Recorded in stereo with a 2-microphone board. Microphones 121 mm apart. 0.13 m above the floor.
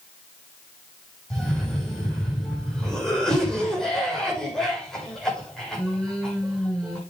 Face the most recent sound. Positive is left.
turn(degrees=5)  # may be behind; listen again after turning